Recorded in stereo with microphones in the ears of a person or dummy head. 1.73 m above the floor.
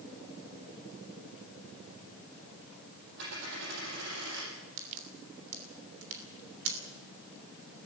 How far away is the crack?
About 3 m.